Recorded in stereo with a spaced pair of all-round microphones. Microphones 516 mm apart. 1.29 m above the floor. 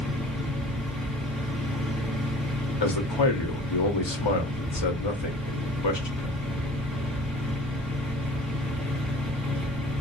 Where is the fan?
Centre (ahead or behind), 0.7 m.